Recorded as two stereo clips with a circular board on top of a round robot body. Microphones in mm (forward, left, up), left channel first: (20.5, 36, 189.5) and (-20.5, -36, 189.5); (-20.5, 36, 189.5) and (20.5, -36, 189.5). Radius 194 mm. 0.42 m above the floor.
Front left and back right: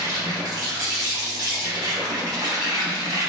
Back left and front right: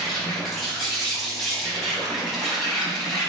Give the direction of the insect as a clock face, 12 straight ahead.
5 o'clock.